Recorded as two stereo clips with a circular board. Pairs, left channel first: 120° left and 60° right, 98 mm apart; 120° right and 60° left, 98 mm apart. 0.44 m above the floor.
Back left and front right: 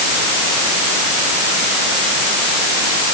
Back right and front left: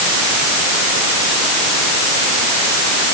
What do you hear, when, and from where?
Only background noise.